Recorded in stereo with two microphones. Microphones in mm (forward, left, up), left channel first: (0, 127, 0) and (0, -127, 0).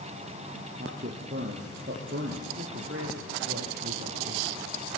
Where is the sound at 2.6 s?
55° right (ahead or behind), 6.5 m.